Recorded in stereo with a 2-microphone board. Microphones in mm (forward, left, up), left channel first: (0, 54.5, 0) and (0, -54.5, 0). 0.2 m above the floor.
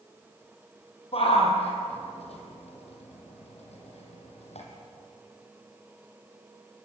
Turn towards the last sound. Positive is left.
turn(degrees=80)